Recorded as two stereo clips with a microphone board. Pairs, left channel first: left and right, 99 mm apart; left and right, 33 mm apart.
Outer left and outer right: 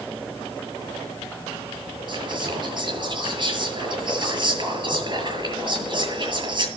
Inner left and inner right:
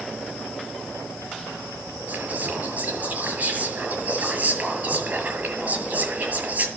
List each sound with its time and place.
2.1 s whispering: 50° right (ahead or behind), 7 m